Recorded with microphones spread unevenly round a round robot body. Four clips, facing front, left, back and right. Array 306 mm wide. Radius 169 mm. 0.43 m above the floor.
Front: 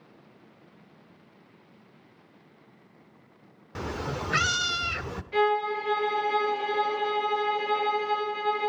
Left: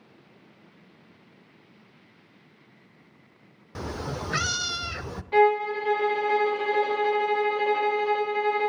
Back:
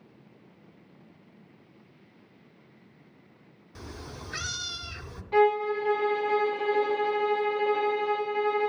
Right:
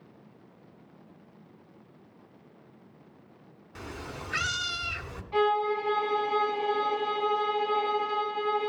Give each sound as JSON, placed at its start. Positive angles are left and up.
{"t": 3.8, "sound": "a cat meowing", "azimuth_deg": 30, "distance_m": 0.7}
{"t": 5.3, "sound": "a violin", "azimuth_deg": 145, "distance_m": 2.5}